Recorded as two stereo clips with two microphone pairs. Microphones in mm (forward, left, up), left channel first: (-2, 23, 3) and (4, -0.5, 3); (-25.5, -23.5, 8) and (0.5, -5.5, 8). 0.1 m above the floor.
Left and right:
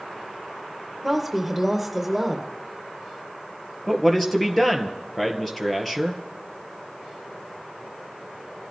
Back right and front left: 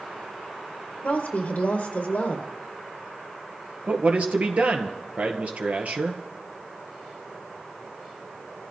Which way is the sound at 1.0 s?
170° right.